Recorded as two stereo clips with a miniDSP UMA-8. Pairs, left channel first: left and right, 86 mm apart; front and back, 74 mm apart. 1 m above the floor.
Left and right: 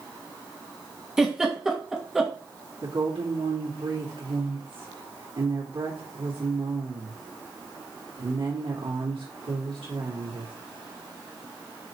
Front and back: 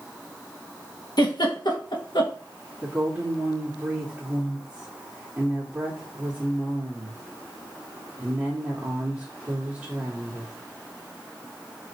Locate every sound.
1.2 s a giggle: 5° right, 1.7 m
2.8 s a woman speaking: 110° right, 2 m